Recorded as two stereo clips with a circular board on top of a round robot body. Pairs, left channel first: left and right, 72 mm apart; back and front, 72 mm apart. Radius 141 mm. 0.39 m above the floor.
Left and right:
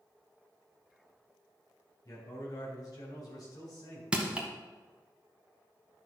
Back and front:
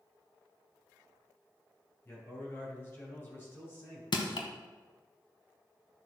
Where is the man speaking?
120° left, 3.5 m.